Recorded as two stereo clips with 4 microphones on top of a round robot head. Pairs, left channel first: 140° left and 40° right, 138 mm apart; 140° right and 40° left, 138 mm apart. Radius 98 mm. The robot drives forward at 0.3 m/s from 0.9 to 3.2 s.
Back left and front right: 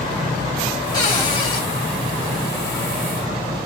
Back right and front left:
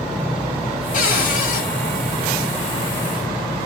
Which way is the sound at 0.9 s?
160° right.